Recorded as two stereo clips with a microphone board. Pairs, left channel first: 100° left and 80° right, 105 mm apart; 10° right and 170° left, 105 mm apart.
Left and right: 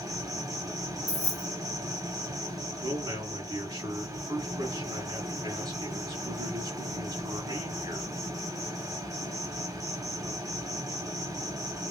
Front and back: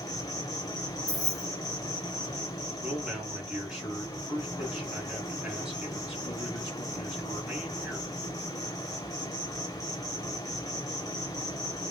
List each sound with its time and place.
0.0 s an insect: 45° right, 0.8 m
1.1 s keys jangling: 70° right, 1.7 m
2.8 s a man speaking: 110° right, 1.7 m